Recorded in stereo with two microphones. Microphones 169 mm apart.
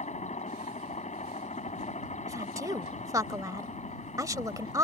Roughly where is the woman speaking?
Right.